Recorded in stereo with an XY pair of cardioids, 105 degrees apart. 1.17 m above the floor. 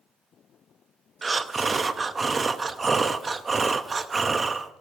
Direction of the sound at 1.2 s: 35° right.